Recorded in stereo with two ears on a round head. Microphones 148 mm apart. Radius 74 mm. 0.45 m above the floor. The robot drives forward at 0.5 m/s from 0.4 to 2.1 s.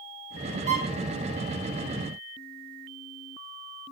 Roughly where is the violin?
Right.